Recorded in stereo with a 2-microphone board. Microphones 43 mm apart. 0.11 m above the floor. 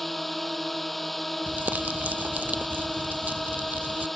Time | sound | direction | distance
0.0 | a drone | centre (ahead or behind) | ?
1.5 | crumpling | 45° right (ahead or behind) | ?